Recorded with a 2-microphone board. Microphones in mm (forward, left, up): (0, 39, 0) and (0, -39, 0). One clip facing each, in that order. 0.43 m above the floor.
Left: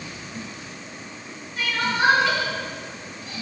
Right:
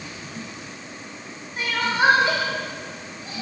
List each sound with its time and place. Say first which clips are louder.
1.6 s crying: right 1 dB; 30° right (ahead or behind), 2 m